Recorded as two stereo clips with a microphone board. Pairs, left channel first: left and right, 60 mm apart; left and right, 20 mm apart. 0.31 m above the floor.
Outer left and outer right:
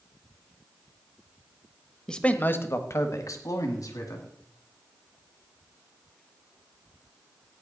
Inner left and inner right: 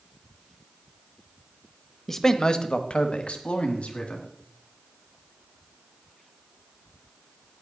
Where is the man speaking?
10° left (ahead or behind), 1.0 m; by 4.3 s 70° left (ahead or behind), 3 m.